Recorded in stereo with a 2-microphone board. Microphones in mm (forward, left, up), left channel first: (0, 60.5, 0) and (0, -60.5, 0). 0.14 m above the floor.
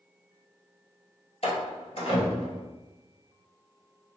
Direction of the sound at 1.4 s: 55° left (ahead or behind).